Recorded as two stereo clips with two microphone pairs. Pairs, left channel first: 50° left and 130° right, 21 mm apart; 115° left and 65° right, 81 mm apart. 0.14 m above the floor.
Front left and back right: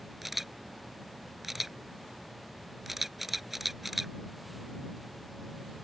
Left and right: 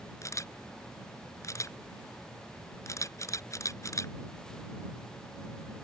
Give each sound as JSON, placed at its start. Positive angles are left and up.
{"t": 0.2, "sound": "a camera shutter", "azimuth_deg": 155}